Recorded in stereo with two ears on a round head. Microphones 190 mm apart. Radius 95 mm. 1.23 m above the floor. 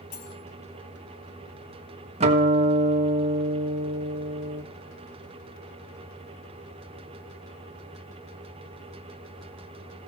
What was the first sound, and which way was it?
Cutlery clinking, 55° left (ahead or behind).